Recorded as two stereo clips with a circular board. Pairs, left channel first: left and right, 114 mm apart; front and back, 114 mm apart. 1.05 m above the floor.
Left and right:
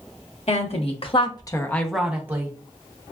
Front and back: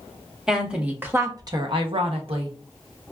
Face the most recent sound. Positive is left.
turn(degrees=-150)